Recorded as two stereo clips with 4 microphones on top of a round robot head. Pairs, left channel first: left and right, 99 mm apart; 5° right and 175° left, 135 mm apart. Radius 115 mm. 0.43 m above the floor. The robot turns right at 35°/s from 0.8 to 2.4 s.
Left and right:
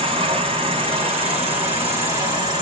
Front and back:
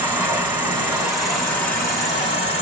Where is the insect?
105° right, 1.5 m; by 2.6 s 50° right, 1.5 m.